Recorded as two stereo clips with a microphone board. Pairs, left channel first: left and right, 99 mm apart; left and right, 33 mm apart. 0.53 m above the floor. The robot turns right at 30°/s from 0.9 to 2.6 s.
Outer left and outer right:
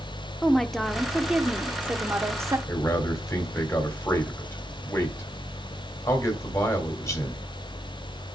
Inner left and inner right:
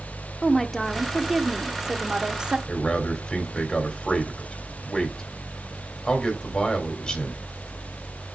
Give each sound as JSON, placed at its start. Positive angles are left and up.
{"t": 0.4, "sound": "a woman speaking", "azimuth_deg": 175, "distance_m": 0.8}
{"t": 2.7, "sound": "a man speaking", "side_deg": 30, "distance_m": 3.0}